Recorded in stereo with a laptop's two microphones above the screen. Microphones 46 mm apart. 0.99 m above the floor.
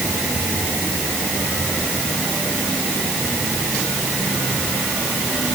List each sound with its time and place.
Only background noise.